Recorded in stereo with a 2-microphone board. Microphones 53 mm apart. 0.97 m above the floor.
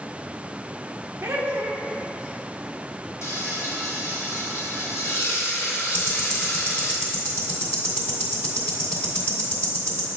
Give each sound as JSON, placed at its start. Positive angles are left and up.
{"t": 1.2, "sound": "laughter", "side_deg": -55, "distance_m": 0.6}
{"t": 3.2, "sound": "frying", "side_deg": 65, "distance_m": 1.2}
{"t": 5.9, "sound": "ticking", "side_deg": 40, "distance_m": 1.8}